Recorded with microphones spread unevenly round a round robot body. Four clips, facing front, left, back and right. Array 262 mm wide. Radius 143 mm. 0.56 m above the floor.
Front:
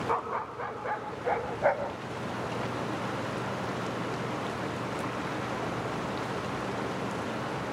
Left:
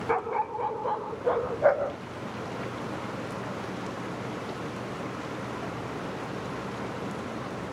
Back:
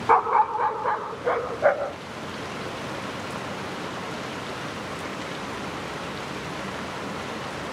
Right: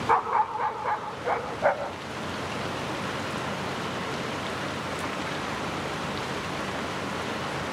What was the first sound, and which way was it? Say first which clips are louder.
A dog barking: right 5 dB, back 15 dB; 140° left.